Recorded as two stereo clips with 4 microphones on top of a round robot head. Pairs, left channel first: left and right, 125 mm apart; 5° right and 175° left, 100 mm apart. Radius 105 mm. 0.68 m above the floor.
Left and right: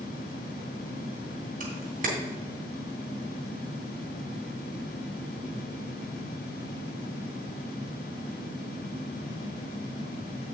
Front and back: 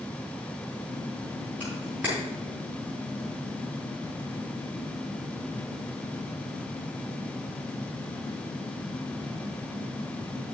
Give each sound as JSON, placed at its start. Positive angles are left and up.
{"t": 1.6, "sound": "a camera shutter", "azimuth_deg": -105, "distance_m": 3.0}